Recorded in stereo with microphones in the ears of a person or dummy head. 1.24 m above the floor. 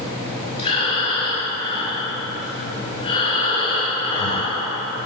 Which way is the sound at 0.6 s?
25° left (ahead or behind).